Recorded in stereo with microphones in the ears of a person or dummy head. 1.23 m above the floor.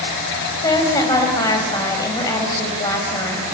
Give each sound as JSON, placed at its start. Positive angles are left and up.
{"t": 0.6, "sound": "a woman speaking", "side_deg": 15, "distance_m": 5.5}